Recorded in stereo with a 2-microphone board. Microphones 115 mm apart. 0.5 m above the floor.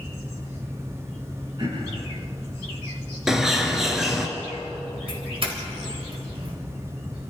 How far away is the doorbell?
About 3 m.